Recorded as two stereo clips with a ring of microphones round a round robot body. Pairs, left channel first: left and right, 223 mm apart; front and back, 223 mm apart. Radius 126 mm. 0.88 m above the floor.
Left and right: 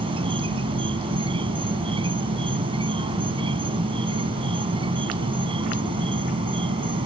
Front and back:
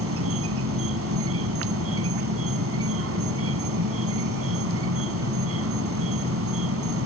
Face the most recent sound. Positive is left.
turn(degrees=-160)